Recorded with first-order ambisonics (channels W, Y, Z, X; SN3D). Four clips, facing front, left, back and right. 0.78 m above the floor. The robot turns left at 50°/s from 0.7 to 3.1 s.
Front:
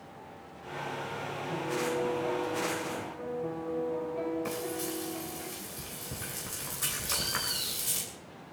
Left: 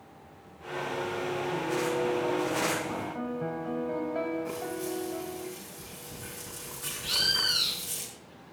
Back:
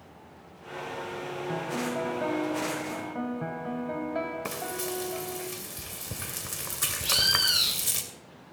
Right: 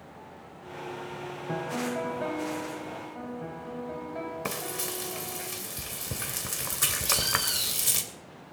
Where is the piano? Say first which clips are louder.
Right 1 dB, even; 115° right, 2.5 m; by 5.5 s 165° left, 2.5 m.